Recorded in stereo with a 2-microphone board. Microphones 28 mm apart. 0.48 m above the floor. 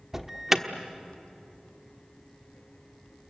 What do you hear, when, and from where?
0.1 s an alarm: 15° right (ahead or behind), 1.3 m